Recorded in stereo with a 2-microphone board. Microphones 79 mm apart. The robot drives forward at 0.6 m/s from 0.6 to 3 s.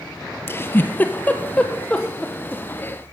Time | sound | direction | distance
0.5 | a giggle | 30° left (ahead or behind) | 0.8 m